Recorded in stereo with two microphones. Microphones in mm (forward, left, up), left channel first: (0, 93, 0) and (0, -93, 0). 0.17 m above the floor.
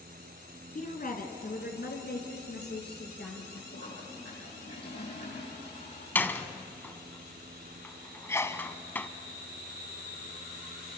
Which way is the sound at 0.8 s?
45° left (ahead or behind).